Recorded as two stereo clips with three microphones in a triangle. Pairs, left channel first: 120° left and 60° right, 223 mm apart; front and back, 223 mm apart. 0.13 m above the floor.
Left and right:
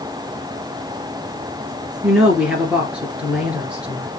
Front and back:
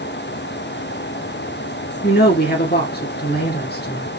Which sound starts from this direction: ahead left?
A woman speaking, at 2.0 s.